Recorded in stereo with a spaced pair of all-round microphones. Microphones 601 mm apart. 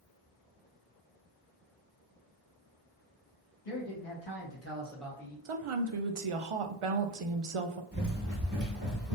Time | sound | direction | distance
3.6 | a man speaking | 65° left (ahead or behind) | 1.6 m
5.5 | a woman speaking | 60° right (ahead or behind) | 0.5 m
7.9 | running footsteps | 20° right (ahead or behind) | 1.5 m